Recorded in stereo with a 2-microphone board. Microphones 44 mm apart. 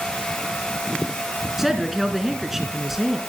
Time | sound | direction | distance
1.6 | a woman speaking | 10° right (ahead or behind) | 3.5 m